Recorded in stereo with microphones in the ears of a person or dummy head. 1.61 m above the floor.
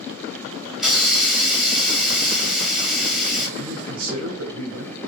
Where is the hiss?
5° left (ahead or behind), 0.6 m.